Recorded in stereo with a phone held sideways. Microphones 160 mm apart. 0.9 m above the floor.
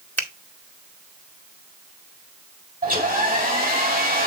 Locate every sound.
0.2 s a finger snap: 10° left (ahead or behind), 1.9 m
2.8 s a hair dryer: 55° right (ahead or behind), 3.5 m